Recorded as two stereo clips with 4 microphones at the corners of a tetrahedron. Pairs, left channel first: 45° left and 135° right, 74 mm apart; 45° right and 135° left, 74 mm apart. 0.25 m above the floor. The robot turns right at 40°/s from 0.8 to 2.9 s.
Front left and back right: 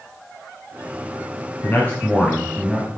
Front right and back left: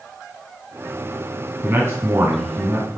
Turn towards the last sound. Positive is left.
turn(degrees=145)